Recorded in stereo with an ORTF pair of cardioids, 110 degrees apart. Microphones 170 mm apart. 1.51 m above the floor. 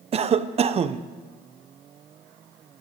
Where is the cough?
40° right, 0.8 m.